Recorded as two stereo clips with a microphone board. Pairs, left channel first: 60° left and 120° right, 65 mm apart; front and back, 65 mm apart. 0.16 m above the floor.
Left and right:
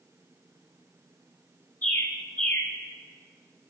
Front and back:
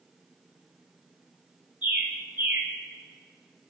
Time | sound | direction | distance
1.8 | a bird | 115° left | 3.5 m